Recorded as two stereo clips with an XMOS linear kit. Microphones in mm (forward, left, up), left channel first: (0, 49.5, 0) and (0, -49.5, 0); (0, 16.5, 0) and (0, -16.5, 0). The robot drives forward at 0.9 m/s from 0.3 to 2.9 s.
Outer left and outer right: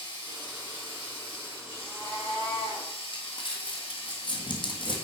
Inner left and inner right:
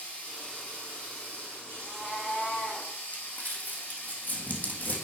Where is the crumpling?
55° left (ahead or behind), 1.4 m.